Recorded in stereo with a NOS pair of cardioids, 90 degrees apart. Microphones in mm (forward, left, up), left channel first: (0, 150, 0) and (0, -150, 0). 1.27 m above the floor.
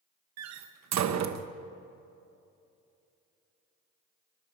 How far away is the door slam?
About 1.0 m.